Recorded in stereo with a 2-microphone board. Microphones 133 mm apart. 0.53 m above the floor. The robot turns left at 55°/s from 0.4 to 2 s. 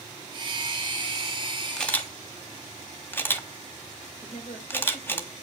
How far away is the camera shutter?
About 1.3 m.